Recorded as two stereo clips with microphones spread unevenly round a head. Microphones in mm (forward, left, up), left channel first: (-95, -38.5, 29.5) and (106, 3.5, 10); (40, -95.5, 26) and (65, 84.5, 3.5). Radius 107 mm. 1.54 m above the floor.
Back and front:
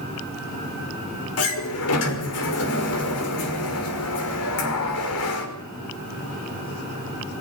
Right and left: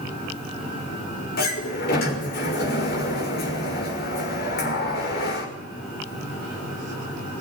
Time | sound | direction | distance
1.4 | a sliding door | 150° right | 6 m